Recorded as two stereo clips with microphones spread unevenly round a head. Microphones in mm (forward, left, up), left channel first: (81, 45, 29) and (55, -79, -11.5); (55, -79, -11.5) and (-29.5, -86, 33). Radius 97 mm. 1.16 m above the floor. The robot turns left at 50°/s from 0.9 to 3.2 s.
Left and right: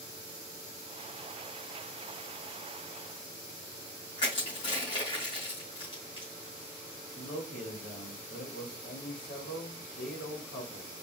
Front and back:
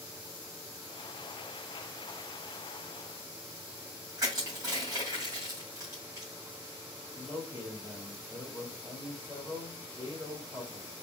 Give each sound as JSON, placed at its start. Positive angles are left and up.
{"t": 4.2, "sound": "crushing", "azimuth_deg": 130, "distance_m": 2.0}
{"t": 7.2, "sound": "a man speaking", "azimuth_deg": 95, "distance_m": 1.9}